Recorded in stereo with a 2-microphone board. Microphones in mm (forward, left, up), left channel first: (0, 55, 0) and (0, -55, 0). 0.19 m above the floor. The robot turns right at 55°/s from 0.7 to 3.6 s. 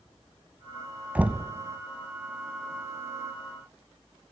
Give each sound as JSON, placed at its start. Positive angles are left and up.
{"t": 1.1, "sound": "knocking", "side_deg": -15, "distance_m": 0.7}